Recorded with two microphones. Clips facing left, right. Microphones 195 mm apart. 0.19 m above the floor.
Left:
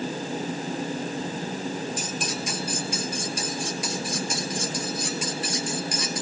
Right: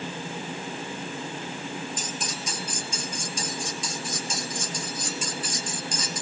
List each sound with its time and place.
2.0 s cutlery clinking: 70° left (ahead or behind), 2.5 m